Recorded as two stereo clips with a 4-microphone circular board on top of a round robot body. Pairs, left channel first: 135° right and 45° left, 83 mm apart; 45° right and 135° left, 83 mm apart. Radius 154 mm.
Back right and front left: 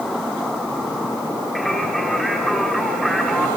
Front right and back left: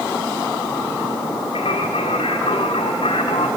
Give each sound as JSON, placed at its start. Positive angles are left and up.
{"t": 1.6, "sound": "singing", "azimuth_deg": -45, "distance_m": 2.5}